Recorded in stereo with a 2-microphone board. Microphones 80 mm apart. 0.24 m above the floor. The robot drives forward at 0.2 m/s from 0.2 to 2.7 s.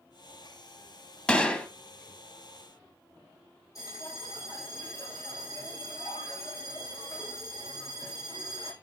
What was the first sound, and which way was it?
A gunshot, 10° left (ahead or behind).